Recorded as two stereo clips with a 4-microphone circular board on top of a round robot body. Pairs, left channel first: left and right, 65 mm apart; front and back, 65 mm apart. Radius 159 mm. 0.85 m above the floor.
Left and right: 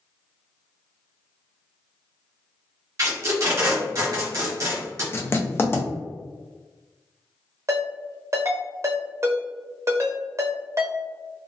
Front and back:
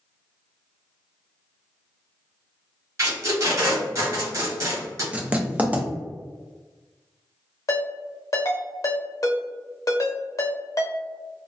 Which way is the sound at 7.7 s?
40° right.